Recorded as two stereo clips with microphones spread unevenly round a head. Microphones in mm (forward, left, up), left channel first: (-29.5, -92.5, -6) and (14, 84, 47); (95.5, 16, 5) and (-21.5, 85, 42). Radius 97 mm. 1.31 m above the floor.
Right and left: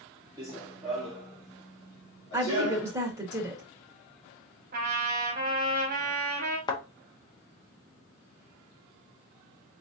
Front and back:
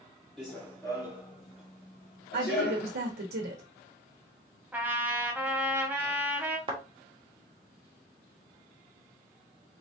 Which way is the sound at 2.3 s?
150° left.